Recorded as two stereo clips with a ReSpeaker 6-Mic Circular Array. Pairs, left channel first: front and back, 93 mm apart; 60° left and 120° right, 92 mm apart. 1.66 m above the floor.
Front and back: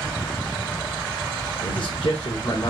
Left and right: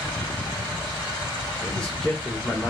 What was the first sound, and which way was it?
A man speaking, 20° right.